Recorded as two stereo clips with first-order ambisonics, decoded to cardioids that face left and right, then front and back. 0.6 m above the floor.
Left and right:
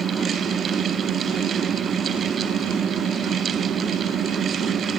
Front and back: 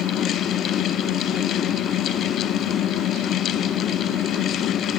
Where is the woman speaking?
No woman speaking in this recording.